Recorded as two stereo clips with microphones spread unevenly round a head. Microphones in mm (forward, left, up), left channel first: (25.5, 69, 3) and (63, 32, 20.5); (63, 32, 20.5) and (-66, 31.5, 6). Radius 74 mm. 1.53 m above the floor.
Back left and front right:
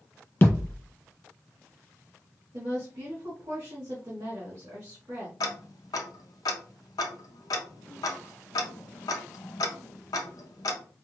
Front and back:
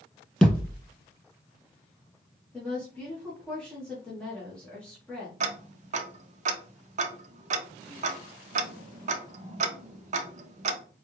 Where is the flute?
I don't hear a flute.